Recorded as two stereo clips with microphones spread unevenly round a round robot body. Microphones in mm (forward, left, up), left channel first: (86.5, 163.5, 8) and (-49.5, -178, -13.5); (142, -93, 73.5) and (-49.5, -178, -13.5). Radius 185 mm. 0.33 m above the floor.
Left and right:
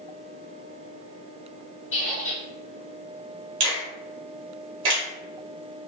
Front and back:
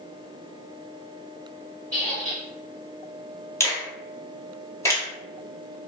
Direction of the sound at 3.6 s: 75° right.